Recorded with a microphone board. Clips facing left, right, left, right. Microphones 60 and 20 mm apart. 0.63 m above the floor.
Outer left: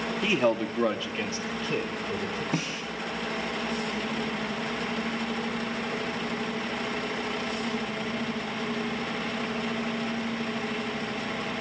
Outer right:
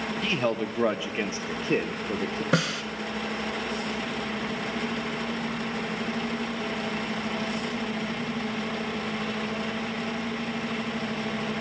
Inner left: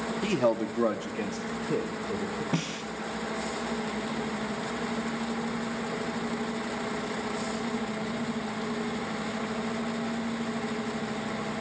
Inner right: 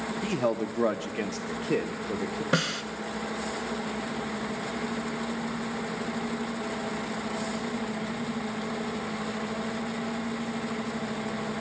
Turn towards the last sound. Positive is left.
turn(degrees=-85)